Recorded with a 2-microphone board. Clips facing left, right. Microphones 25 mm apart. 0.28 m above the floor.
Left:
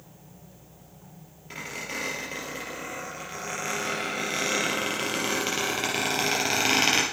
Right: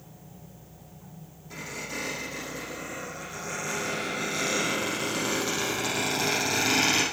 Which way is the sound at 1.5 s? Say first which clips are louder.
Left 2 dB; 50° left (ahead or behind).